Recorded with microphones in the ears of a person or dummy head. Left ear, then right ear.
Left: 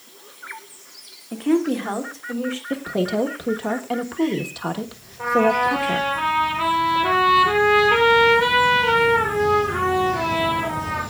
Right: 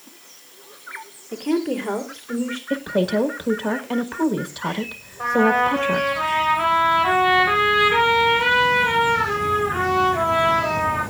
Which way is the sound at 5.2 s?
20° left (ahead or behind).